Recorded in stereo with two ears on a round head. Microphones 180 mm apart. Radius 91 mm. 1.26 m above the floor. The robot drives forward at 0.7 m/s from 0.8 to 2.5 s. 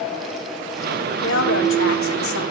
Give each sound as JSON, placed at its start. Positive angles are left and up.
{"t": 1.2, "sound": "a woman speaking", "side_deg": 65, "distance_m": 3.0}